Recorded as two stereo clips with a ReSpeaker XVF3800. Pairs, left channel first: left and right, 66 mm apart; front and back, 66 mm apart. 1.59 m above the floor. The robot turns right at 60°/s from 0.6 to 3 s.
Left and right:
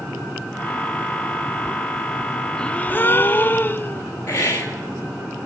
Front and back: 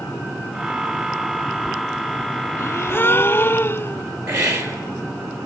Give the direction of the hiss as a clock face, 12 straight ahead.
7 o'clock.